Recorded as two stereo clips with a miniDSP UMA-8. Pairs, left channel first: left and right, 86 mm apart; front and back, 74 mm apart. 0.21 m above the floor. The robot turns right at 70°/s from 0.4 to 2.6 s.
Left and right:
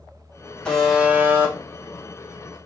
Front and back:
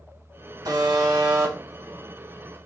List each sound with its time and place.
0.7 s a buzzer: 170° left, 1.4 m; by 2.6 s 60° right, 1.4 m